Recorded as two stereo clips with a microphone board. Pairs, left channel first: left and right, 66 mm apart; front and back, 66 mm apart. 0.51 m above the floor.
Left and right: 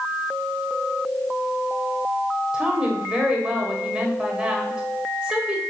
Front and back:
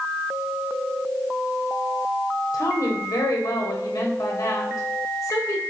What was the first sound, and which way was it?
A woman speaking, 15° right.